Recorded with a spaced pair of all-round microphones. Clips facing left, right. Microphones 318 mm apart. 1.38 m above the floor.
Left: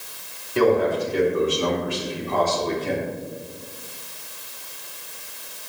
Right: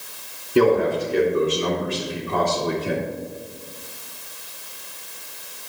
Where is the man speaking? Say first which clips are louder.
Right 2 dB; 45° right (ahead or behind), 3 m; by 3.1 s 5° right (ahead or behind), 2.5 m.